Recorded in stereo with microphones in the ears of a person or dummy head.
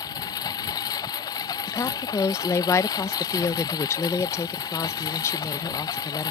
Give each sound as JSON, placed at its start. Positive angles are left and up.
{"t": 0.0, "sound": "a lawn mower", "side_deg": 25}
{"t": 1.7, "sound": "a woman speaking", "side_deg": 15}